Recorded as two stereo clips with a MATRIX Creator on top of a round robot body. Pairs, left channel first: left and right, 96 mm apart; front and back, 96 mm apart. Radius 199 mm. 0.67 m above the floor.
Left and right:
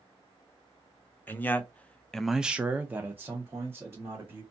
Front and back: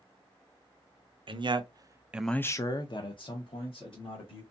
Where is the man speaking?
160° left, 0.8 m; by 4.4 s 20° right, 1.5 m.